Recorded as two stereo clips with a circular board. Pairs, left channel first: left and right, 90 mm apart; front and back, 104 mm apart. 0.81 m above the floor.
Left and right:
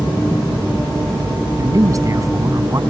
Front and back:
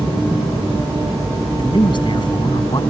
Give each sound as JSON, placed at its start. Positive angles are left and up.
{"t": 1.6, "sound": "a man speaking", "azimuth_deg": -40}